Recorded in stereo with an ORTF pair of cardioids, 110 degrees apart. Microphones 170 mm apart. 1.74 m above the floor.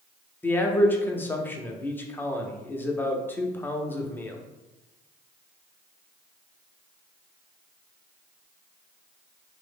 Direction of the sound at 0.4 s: 10° left.